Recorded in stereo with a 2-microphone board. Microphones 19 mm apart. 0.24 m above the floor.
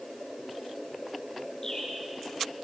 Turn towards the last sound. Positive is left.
turn(degrees=30)  # may be behind; listen again after turning